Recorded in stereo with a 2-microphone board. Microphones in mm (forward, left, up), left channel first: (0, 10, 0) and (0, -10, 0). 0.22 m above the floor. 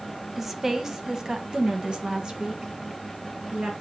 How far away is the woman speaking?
About 1.1 m.